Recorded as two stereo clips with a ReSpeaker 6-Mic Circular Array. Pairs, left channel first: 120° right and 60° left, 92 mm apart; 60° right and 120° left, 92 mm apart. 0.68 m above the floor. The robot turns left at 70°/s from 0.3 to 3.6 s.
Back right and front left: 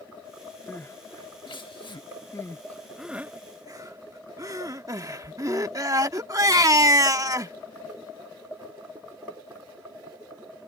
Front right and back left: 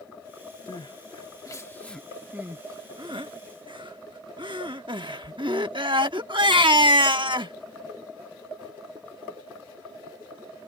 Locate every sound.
0.7 s crying: 50° right; by 7.5 s 105° left